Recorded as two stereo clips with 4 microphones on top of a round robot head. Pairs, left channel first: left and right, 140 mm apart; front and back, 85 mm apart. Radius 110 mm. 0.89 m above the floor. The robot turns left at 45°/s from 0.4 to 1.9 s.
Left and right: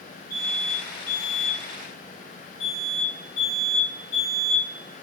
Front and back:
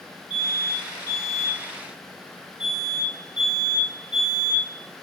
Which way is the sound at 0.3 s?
100° left.